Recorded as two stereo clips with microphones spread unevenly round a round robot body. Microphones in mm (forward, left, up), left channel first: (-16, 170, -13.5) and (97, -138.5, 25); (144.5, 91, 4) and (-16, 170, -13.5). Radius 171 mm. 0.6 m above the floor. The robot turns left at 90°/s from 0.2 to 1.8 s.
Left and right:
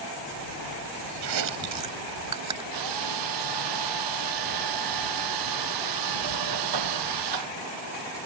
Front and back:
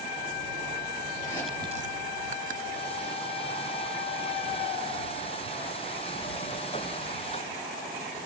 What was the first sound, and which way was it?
Chewing, 90° right.